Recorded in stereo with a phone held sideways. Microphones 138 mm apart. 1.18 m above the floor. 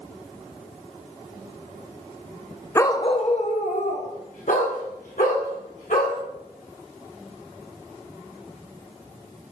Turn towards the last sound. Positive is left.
turn(degrees=80)